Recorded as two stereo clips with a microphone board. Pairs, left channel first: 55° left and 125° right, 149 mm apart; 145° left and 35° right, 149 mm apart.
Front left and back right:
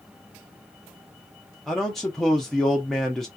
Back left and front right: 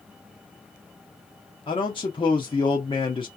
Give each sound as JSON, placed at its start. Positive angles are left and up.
{"t": 1.7, "sound": "a man speaking", "azimuth_deg": 140, "distance_m": 0.7}